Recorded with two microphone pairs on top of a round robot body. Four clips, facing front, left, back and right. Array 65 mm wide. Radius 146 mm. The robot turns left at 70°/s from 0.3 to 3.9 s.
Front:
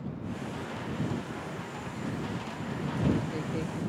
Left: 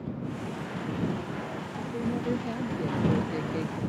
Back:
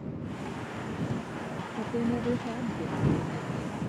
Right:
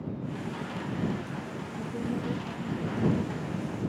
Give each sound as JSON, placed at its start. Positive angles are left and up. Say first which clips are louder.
{"t": 1.8, "sound": "a woman speaking", "louder": "left 1 dB, back 9 dB", "azimuth_deg": -175}